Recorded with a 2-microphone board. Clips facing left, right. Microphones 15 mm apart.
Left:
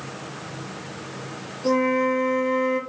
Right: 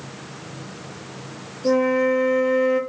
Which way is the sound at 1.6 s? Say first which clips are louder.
Right 2 dB; 5° left (ahead or behind).